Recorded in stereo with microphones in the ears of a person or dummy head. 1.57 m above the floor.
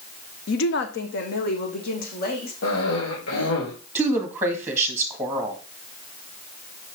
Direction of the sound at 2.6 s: 85° left.